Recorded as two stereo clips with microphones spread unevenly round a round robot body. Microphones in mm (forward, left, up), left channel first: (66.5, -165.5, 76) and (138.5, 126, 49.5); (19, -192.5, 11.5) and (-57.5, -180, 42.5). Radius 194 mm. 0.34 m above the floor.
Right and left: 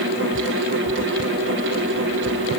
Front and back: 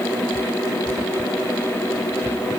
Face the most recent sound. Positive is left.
No sound to turn to.